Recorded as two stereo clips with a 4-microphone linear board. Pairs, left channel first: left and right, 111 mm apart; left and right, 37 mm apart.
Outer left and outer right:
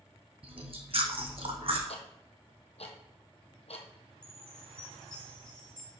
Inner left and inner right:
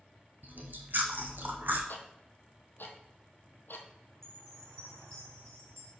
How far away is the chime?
About 3 m.